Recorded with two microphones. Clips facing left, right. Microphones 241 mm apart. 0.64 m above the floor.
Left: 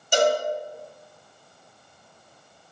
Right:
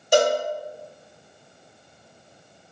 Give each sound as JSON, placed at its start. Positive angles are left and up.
{"t": 0.1, "sound": "a cowbell", "side_deg": -75, "distance_m": 1.1}